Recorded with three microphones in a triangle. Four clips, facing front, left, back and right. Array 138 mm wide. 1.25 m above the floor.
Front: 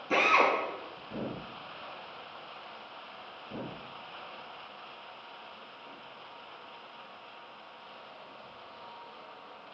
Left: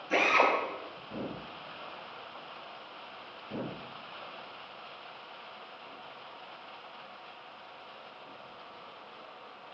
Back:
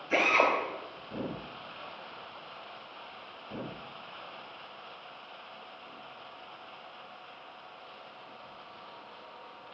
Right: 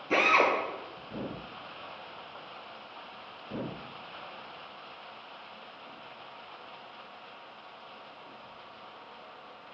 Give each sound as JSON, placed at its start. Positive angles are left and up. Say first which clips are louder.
{"t": 0.1, "sound": "a drill", "louder": "right 1 dB, front 1 dB", "azimuth_deg": -25, "distance_m": 8.0}